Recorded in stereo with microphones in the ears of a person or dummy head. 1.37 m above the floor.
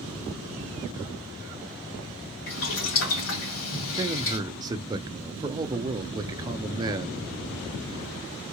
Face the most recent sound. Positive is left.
turn(degrees=-20)  # may be behind; listen again after turning